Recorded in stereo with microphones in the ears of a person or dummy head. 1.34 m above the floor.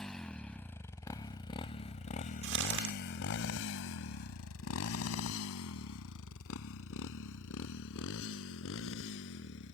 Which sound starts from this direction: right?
Crumpling, at 2.4 s.